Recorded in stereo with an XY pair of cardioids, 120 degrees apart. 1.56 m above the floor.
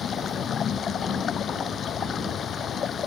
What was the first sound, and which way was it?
Running water, 40° left.